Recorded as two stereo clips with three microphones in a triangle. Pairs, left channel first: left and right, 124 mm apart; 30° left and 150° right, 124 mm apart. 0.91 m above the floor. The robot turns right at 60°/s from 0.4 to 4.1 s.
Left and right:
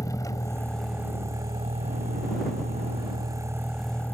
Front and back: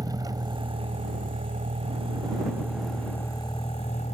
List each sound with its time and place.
0.0 s a vehicle: 150° left; by 4.2 s 15° left